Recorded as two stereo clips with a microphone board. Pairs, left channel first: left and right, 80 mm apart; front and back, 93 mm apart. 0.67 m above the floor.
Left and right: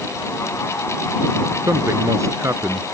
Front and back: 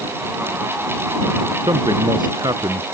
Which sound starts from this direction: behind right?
A man speaking, at 1.7 s.